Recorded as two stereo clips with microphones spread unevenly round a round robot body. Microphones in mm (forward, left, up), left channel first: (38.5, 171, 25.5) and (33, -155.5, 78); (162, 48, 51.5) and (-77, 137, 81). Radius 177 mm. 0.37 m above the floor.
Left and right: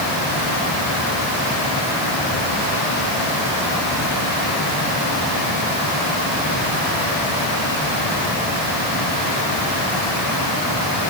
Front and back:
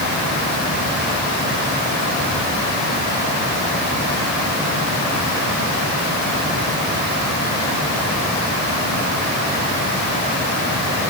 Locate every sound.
Only background noise.